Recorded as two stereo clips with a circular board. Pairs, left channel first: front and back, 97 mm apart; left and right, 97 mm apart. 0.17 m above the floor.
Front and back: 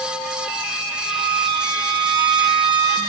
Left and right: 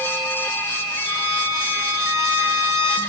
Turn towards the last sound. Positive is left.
turn(degrees=-145)